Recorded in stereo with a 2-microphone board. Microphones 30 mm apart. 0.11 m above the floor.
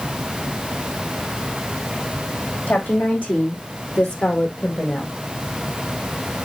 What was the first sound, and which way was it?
A woman speaking, 75° left (ahead or behind).